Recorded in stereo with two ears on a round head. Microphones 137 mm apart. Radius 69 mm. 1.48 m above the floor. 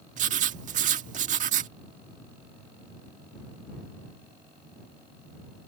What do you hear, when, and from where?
0.2 s writing: 50° right (ahead or behind)